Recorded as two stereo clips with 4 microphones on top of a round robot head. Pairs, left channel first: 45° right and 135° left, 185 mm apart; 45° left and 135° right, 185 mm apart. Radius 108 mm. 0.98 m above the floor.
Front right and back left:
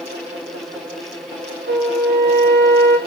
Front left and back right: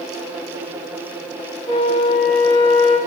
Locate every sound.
1.7 s a flute: 105° left, 4 m